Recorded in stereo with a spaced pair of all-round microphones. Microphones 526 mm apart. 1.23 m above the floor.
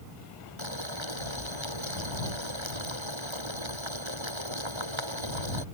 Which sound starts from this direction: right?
Boiling, at 0.6 s.